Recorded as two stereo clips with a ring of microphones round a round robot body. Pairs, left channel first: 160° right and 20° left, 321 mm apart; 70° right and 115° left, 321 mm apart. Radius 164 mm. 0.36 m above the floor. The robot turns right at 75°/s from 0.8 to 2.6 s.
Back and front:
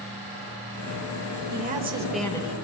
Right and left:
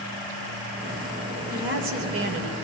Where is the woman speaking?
60° left, 1.1 m; by 2.5 s 140° left, 1.1 m.